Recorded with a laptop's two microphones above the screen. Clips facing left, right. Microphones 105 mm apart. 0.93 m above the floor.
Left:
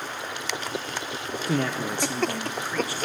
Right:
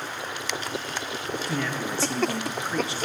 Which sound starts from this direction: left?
A man speaking, at 1.5 s.